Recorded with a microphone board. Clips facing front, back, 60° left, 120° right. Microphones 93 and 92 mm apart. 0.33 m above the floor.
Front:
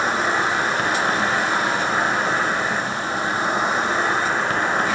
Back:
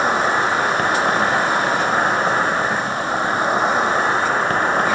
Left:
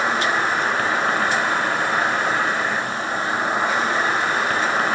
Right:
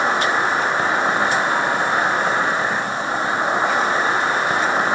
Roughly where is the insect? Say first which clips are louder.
Back 3 dB, right 2 dB; behind.